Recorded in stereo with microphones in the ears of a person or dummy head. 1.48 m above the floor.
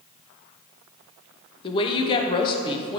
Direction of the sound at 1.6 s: 25° left (ahead or behind).